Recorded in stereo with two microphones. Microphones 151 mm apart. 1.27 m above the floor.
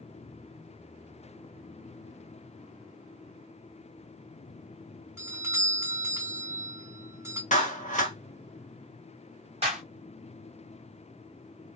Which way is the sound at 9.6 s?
40° right (ahead or behind).